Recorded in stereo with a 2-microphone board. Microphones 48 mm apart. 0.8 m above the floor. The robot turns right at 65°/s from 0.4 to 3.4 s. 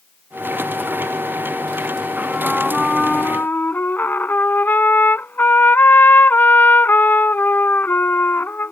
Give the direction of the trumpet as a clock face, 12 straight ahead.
1 o'clock.